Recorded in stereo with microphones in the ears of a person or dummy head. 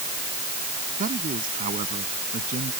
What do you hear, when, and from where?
1.0 s a man speaking: 40° right (ahead or behind)